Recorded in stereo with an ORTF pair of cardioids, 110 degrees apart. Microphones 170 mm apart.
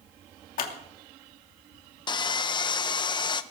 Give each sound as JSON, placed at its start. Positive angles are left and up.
{"t": 0.6, "sound": "scissors", "azimuth_deg": 55, "distance_m": 3.0}
{"t": 2.1, "sound": "sawing", "azimuth_deg": 25, "distance_m": 0.9}